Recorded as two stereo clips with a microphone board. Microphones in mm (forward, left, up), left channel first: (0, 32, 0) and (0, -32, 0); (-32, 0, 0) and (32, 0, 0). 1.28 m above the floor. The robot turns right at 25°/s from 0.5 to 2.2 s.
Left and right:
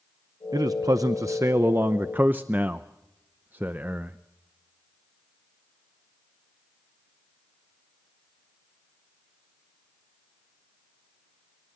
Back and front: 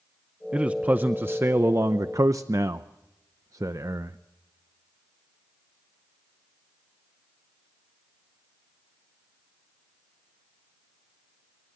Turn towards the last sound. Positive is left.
turn(degrees=-30)